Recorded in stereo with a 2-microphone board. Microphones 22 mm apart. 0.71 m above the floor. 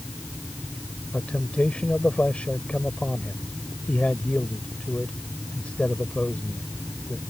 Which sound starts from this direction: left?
A man speaking, at 1.1 s.